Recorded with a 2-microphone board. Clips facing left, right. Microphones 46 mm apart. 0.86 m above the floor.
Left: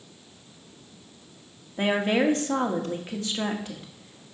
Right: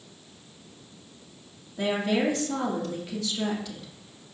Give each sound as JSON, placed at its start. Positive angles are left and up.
{"t": 1.8, "sound": "a woman speaking", "side_deg": 40, "distance_m": 1.5}